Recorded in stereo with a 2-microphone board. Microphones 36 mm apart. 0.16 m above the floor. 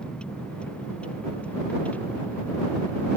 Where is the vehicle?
25° left (ahead or behind); by 3.2 s 50° left (ahead or behind).